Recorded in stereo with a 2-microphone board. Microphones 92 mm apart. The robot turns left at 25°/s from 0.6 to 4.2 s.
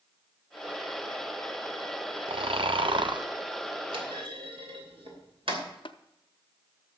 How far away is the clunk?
About 3 m.